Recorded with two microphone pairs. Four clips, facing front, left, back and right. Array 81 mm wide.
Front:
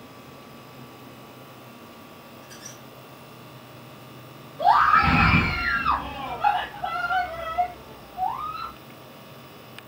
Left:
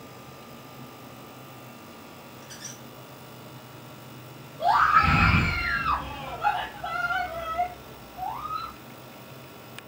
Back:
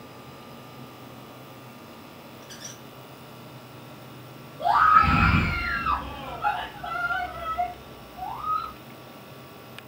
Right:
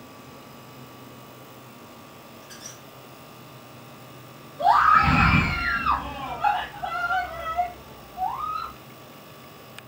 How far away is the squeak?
About 2.5 m.